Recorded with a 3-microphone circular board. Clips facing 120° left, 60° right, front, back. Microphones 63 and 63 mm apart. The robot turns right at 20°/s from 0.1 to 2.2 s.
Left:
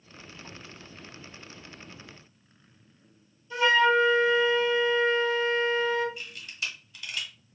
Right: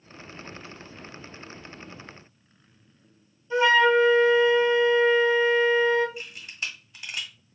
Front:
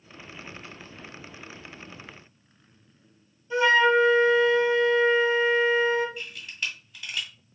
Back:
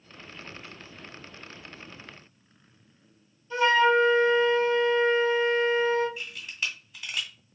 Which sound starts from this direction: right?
A camera shutter, at 6.2 s.